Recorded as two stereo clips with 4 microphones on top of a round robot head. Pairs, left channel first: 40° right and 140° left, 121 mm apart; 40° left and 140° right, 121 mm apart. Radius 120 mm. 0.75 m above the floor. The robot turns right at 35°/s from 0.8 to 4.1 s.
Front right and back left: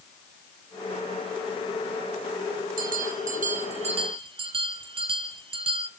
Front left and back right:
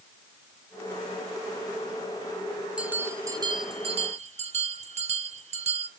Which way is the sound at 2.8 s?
140° left.